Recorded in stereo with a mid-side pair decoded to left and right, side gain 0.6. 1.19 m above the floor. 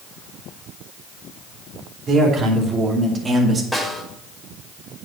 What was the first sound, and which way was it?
A man speaking, 45° right.